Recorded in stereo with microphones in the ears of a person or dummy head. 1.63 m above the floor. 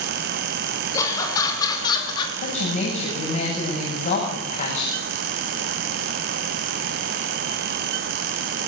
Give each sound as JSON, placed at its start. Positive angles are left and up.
{"t": 0.9, "sound": "laughter", "side_deg": 20, "distance_m": 7.0}
{"t": 2.4, "sound": "a woman speaking", "side_deg": 45, "distance_m": 8.5}